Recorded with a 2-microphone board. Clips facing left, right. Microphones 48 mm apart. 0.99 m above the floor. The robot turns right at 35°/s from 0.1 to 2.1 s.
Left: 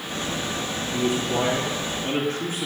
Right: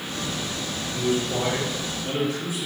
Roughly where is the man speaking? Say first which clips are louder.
Left 1 dB; left.